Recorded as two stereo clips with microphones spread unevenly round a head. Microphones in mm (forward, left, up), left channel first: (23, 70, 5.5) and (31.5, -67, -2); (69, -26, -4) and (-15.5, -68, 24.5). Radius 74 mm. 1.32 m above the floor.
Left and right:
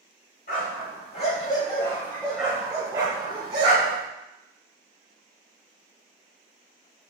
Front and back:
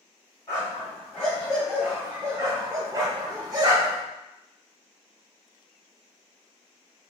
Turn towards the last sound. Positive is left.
turn(degrees=-125)